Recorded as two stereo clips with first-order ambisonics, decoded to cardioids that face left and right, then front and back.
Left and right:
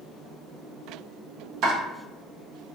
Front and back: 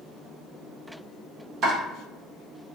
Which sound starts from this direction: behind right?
Chopping, at 1.6 s.